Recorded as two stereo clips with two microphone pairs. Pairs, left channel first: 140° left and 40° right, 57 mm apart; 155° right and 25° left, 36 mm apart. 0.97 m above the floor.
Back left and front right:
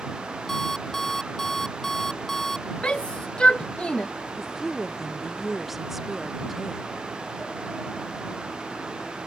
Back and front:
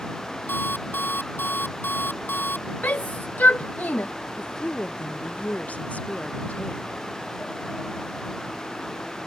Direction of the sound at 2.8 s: 155° right.